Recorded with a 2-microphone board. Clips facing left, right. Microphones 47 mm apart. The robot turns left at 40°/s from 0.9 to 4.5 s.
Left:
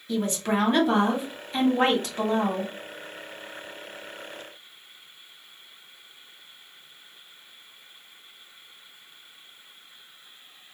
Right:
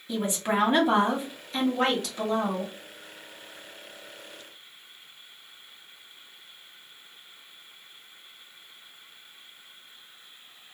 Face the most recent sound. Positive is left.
turn(degrees=50)